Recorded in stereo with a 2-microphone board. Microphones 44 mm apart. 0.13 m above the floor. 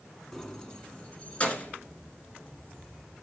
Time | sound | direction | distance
0.3 | keys jangling | 5° left (ahead or behind) | 1.1 m